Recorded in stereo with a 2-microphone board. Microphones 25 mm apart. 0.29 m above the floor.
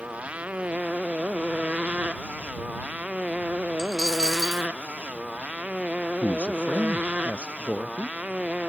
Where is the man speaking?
60° left (ahead or behind).